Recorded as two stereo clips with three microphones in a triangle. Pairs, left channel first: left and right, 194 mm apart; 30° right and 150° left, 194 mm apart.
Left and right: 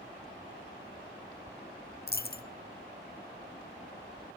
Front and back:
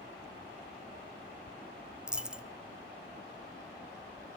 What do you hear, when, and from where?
2.1 s a dropped coin: 65° left, 0.5 m